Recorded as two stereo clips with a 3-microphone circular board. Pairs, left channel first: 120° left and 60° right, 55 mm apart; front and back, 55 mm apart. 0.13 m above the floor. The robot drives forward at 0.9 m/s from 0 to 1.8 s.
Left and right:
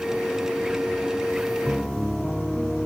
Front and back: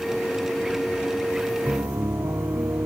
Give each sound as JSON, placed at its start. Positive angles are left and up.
{"t": 1.7, "sound": "a piano", "azimuth_deg": -150}